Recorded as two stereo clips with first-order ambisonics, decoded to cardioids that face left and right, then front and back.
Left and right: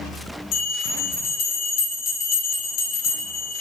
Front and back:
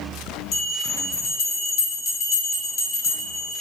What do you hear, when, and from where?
0.5 s a bell: 40° left, 1.9 m